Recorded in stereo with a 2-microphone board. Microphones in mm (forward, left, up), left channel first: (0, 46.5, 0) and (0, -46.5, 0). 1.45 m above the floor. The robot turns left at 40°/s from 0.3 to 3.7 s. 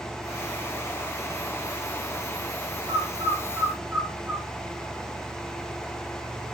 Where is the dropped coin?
I don't hear a dropped coin.